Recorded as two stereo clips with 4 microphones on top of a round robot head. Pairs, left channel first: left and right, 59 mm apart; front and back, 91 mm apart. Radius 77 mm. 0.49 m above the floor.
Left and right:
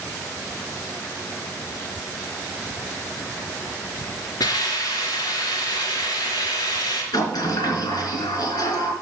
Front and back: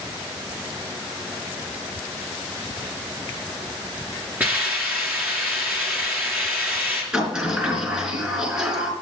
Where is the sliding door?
95° left, 4.5 m.